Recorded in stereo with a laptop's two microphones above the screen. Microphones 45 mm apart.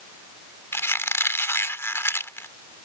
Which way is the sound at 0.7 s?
70° left (ahead or behind).